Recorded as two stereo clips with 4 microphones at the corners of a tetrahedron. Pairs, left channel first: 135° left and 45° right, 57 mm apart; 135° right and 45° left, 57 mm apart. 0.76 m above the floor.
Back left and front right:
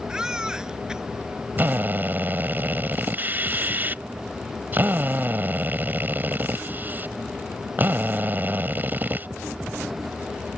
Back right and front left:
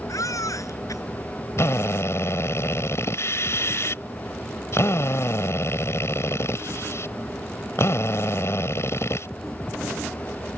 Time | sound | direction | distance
0.1 | a baby crying | 125° right | ?
1.6 | a drill | 100° right | ?